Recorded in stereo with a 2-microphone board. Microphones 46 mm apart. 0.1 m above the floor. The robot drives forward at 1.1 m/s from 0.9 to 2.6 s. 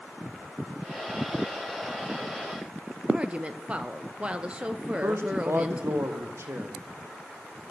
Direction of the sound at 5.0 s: 65° right (ahead or behind).